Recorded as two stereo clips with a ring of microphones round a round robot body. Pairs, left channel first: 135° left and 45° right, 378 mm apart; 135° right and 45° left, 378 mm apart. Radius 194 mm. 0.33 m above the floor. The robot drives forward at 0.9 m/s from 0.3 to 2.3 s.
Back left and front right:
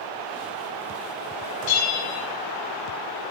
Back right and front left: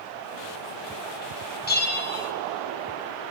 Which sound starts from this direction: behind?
A bell, at 1.7 s.